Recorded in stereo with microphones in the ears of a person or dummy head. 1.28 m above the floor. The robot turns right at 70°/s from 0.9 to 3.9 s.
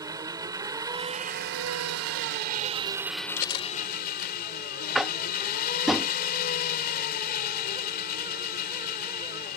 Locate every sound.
0.0 s an engine running: 160° right; by 9.6 s 50° left
3.4 s cutlery clinking: 40° left (ahead or behind); by 4.4 s 75° left (ahead or behind)
5.0 s tapping: 5° right (ahead or behind)